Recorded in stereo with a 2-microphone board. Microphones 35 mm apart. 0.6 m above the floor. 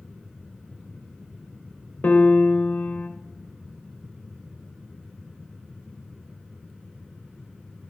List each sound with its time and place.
2.0 s a piano: 50° left (ahead or behind), 1.2 m